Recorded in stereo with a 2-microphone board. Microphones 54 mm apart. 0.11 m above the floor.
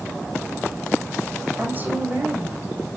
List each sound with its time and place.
1.6 s a woman speaking: 35° right (ahead or behind), 5 m